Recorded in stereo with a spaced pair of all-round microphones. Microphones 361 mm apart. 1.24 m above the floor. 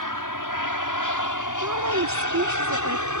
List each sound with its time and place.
0.0 s an aircraft: 60° left (ahead or behind); by 3.2 s 50° left (ahead or behind)
1.6 s a woman speaking: 50° right (ahead or behind)